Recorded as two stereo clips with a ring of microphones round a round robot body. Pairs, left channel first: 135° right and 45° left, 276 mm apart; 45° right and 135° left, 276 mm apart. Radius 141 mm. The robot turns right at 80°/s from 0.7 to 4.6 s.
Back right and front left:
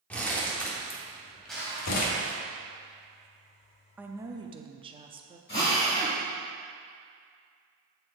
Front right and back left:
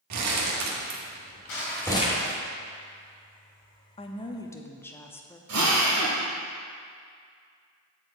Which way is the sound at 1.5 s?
45° right.